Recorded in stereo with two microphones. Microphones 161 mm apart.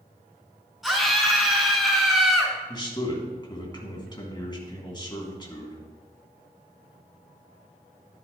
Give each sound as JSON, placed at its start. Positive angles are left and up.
{"t": 0.8, "sound": "a scream", "side_deg": 0, "distance_m": 3.0}
{"t": 2.7, "sound": "a man speaking", "side_deg": 30, "distance_m": 2.5}